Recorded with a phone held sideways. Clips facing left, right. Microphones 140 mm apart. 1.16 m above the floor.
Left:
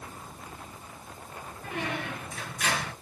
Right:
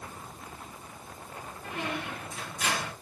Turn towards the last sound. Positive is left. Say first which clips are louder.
# left 1 dB
turn(degrees=65)  # may be behind; listen again after turning